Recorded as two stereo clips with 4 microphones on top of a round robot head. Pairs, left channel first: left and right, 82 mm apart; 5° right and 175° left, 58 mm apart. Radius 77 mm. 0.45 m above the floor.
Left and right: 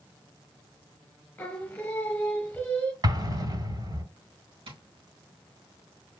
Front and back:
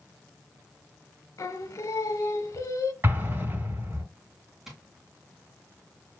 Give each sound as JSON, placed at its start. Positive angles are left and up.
{"t": 1.4, "sound": "singing", "azimuth_deg": 15, "distance_m": 1.4}
{"t": 3.0, "sound": "an explosion", "azimuth_deg": -130, "distance_m": 4.5}
{"t": 4.7, "sound": "tapping", "azimuth_deg": -100, "distance_m": 3.0}